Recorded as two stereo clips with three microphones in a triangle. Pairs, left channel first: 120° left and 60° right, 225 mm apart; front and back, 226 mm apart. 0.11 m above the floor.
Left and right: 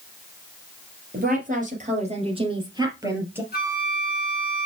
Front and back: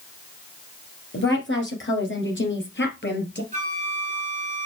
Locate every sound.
1.1 s a woman speaking: 20° right, 3 m; by 3.4 s 20° left, 2.5 m
3.5 s a flute: 140° left, 1.5 m